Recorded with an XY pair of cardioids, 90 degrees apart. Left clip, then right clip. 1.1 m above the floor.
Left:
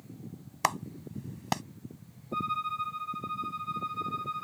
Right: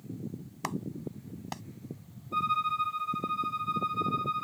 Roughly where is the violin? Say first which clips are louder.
Right 3 dB; ahead right.